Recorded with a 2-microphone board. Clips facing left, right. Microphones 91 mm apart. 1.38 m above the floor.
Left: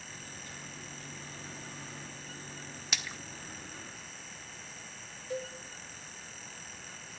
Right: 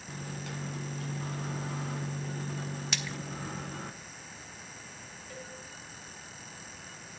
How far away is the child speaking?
I don't hear a child speaking.